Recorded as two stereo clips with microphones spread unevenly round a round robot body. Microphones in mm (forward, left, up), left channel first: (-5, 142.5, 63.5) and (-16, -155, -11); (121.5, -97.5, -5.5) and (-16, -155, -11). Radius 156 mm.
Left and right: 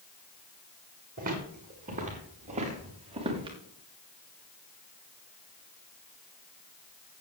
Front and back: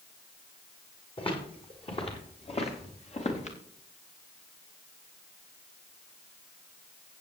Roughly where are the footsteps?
Ahead right.